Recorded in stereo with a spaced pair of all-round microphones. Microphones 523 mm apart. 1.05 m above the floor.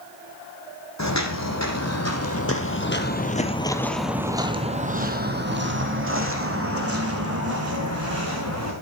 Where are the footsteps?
30° left (ahead or behind), 2 m; by 8.7 s 30° right (ahead or behind), 3.5 m.